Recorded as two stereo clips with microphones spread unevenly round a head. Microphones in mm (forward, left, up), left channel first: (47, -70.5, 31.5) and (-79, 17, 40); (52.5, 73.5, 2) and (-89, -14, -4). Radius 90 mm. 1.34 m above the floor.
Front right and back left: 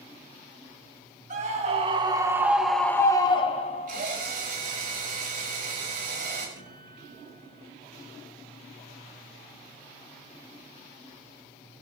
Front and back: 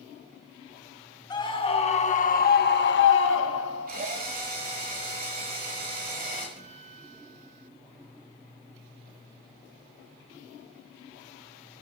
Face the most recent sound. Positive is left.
turn(degrees=165)